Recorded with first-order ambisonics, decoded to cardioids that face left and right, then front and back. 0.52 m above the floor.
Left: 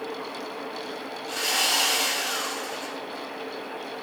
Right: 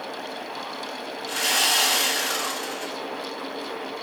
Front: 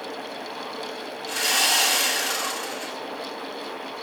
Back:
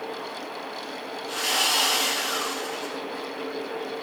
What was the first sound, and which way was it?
Sawing, 40° right.